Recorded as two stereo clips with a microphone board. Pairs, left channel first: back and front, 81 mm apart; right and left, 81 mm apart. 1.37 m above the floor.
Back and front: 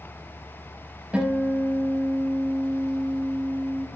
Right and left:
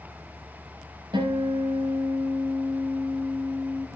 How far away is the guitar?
About 5.5 m.